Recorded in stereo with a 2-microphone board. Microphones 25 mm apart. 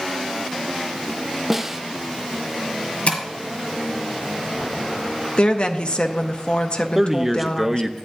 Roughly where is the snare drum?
Centre.